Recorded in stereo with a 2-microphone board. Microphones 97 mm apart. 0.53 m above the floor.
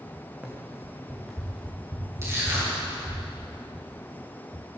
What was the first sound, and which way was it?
Running footsteps, 10° right (ahead or behind).